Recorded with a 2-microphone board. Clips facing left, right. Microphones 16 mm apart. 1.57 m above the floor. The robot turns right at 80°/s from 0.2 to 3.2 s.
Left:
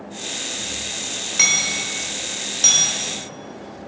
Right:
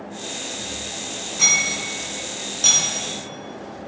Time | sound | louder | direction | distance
1.4 | hammering | even | 55° left (ahead or behind) | 3 m